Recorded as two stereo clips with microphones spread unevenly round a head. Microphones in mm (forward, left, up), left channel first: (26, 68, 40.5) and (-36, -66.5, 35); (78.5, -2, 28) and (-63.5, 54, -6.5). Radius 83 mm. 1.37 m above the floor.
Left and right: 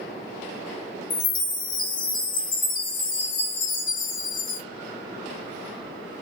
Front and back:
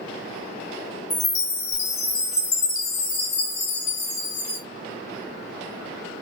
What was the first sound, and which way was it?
A chime, 25° left.